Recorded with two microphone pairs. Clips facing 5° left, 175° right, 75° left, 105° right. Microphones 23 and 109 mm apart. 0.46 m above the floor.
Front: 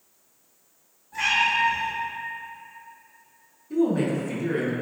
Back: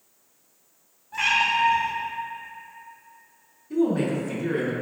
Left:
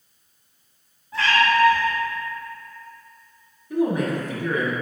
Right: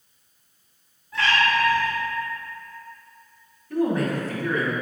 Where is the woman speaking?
120° left, 0.7 m.